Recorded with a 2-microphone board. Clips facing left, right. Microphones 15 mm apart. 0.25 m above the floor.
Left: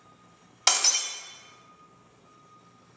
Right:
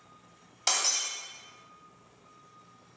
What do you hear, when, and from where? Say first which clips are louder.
0.7 s breaking glass: left 5 dB; 35° left (ahead or behind), 0.5 m